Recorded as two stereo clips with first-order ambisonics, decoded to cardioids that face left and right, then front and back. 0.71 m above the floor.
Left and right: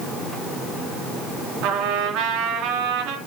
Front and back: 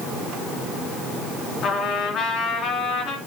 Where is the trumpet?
50° right, 3 m.